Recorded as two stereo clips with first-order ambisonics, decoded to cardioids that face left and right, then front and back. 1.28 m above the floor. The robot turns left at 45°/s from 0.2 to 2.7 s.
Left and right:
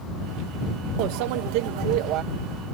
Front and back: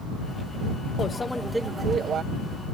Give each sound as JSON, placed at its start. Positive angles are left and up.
{"t": 1.0, "sound": "a microwave", "azimuth_deg": -70}